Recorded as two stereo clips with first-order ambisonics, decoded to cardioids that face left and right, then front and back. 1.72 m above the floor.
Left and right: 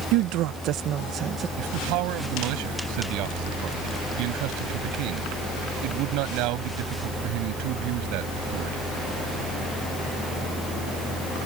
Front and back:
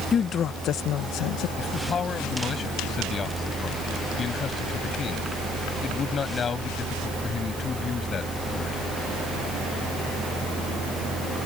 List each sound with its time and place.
0.1 s a woman speaking: 65° right; by 1.5 s 25° right
1.6 s a man speaking: 65° right